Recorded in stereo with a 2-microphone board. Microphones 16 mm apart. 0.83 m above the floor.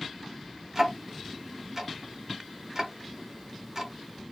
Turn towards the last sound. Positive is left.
turn(degrees=-25)  # may be behind; listen again after turning